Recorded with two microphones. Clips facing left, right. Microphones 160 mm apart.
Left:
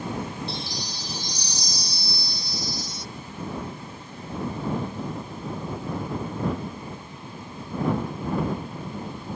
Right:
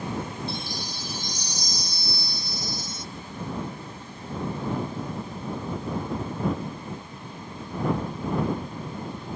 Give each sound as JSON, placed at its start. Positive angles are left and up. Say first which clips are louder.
{"t": 0.5, "sound": "a chime", "louder": "even", "side_deg": -50}